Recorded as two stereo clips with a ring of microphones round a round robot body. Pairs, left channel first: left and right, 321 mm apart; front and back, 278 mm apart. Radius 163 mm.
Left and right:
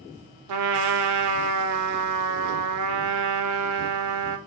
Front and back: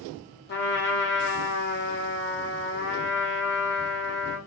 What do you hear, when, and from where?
0.5 s a trumpet: 55° right, 0.6 m